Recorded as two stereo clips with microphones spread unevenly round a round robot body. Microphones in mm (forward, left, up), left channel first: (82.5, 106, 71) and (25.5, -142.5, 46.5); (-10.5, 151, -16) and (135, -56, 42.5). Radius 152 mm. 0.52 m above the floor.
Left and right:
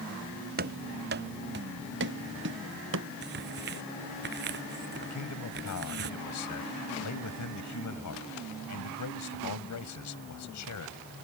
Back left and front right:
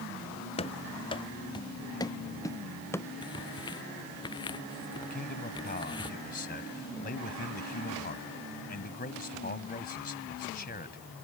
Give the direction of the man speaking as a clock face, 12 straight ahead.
10 o'clock.